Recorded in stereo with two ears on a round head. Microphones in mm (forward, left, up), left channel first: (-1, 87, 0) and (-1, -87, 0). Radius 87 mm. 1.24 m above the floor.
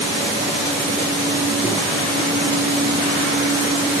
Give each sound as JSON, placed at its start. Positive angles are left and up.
{"t": 1.6, "sound": "a microwave", "side_deg": -10, "distance_m": 2.5}